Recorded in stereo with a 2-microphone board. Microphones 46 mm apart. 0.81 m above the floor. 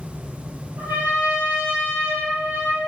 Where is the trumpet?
75° right (ahead or behind), 1.6 m.